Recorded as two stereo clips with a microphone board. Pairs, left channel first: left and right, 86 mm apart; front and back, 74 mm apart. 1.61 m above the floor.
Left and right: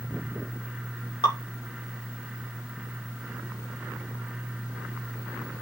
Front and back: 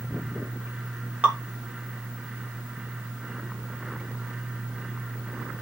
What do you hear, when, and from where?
1.2 s dripping: 110° left, 3 m